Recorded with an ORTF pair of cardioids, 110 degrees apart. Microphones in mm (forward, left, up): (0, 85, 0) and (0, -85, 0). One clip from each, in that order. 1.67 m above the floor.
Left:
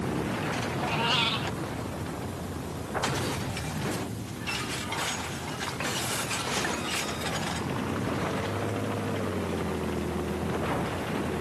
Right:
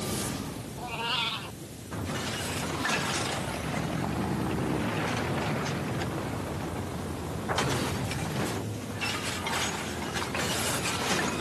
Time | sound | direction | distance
0.8 | a cat meowing | 25° left | ?